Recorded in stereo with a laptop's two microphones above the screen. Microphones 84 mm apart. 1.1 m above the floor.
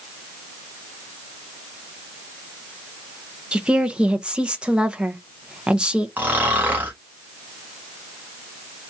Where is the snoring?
20° right (ahead or behind), 1.3 m.